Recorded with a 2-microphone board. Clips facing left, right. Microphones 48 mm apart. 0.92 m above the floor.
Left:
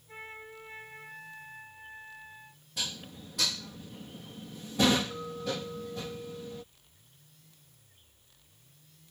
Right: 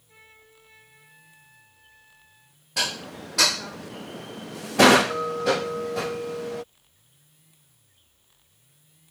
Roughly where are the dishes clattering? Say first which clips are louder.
Right 10 dB; right.